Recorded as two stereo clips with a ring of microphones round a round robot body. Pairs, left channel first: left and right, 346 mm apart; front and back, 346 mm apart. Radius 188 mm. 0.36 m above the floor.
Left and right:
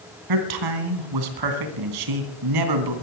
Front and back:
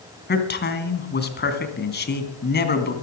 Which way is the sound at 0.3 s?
60° right.